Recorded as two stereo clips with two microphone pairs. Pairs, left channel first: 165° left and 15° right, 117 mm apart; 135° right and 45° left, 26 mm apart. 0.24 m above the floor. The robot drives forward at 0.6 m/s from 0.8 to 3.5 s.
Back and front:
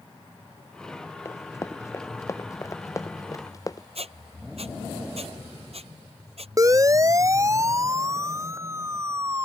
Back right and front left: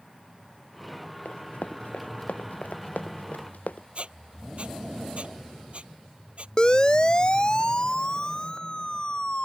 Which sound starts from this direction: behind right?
Running footsteps, at 1.2 s.